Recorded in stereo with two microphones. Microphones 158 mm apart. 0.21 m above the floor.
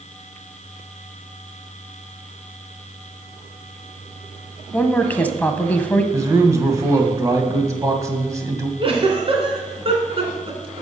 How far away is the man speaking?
About 1.3 m.